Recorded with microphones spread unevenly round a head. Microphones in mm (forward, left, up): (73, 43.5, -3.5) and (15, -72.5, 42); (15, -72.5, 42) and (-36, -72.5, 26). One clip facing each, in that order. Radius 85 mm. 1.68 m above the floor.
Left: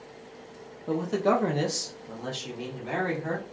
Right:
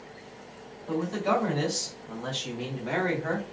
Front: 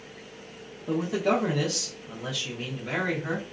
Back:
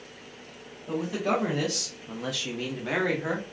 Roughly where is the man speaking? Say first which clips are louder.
Left 2 dB, front 2 dB; ahead left.